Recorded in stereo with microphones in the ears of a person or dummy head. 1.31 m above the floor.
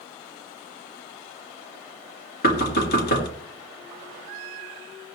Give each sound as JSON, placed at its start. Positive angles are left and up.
{"t": 2.4, "sound": "knocking", "side_deg": 60, "distance_m": 1.6}